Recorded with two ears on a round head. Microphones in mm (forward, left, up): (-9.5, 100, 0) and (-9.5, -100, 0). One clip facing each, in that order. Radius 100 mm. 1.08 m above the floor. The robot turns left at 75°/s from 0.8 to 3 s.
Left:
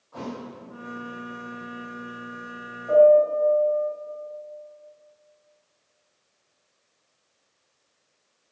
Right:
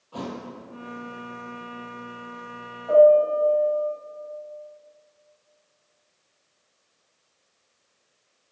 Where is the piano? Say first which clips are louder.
Even; 30° left (ahead or behind), 2.5 m; by 3.9 s 20° left (ahead or behind), 2.5 m.